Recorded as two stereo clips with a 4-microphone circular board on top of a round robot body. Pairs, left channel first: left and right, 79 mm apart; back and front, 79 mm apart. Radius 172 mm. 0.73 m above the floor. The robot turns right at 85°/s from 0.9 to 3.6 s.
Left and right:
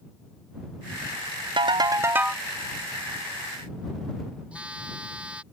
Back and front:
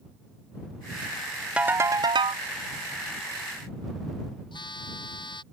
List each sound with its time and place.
1.6 s a ringtone: 75° right; by 2.4 s straight ahead
4.5 s a phone buzzing: 165° right